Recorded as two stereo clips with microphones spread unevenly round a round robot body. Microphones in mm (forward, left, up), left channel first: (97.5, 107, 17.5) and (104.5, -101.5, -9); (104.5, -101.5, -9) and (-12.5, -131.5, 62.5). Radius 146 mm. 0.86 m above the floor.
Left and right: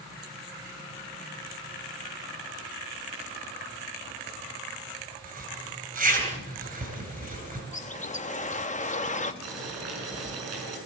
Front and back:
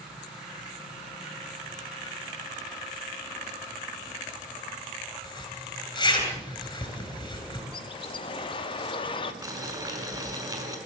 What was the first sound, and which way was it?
A zipper, 40° right.